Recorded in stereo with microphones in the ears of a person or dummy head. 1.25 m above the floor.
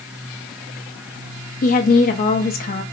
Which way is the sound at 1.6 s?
40° left (ahead or behind).